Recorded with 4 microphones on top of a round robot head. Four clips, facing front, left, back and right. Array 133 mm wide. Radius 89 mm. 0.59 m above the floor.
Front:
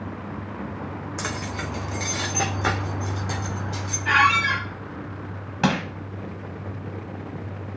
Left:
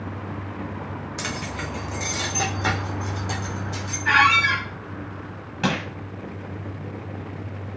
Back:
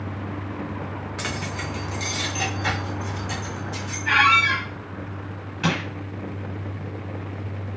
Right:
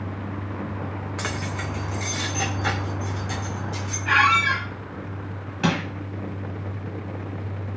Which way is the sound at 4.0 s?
65° left.